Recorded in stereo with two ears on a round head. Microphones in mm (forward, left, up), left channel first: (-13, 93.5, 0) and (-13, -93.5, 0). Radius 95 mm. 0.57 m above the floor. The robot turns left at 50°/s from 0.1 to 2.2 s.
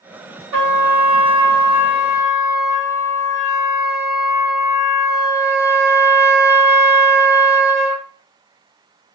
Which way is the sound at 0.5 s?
150° right.